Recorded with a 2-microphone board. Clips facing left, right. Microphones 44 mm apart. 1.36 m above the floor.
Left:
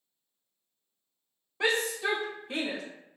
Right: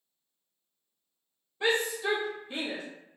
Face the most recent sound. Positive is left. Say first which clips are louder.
# even
turn(degrees=75)  # may be behind; listen again after turning